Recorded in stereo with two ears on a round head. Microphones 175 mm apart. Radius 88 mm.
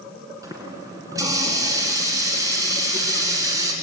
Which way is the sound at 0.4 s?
20° right (ahead or behind).